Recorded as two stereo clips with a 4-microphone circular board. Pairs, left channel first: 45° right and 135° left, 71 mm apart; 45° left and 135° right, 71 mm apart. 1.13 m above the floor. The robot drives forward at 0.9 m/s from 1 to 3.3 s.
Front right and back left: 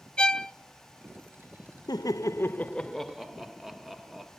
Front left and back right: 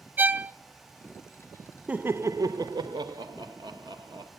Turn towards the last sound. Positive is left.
turn(degrees=-140)